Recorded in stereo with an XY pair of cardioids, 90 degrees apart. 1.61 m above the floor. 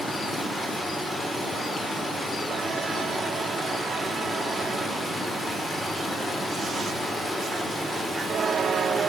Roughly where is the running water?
Ahead left.